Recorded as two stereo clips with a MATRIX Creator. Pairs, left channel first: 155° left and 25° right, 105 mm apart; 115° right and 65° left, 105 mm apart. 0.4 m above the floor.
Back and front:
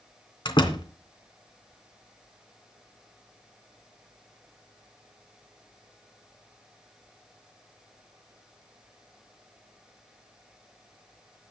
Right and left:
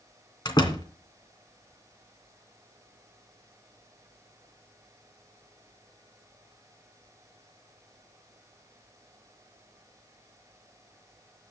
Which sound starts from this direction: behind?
A door slam, at 0.5 s.